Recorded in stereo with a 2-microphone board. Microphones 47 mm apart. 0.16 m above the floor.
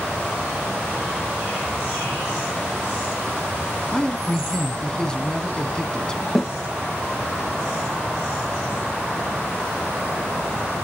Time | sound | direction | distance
3.9 | a man speaking | 15° left (ahead or behind) | 1.3 m
6.3 | a snare drum | 5° left (ahead or behind) | 6.5 m